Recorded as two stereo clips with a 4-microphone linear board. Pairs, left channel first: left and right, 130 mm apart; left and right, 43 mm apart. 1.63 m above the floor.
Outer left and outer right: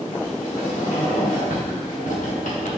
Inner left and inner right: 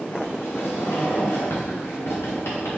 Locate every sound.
0.1 s a sliding door: 85° left, 1.3 m